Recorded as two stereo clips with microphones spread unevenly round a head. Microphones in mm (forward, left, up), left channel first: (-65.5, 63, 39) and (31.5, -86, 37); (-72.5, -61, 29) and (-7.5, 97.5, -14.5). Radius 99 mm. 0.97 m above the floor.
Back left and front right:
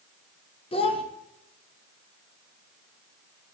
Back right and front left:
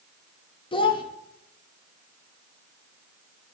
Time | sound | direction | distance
0.7 | a child speaking | straight behind | 1.0 m